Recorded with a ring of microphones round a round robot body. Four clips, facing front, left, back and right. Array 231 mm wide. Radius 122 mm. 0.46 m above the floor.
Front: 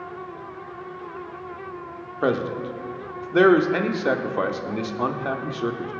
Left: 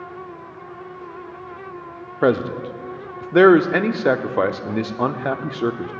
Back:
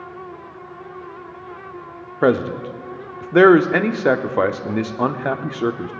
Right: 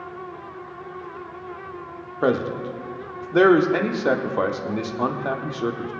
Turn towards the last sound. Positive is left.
turn(degrees=145)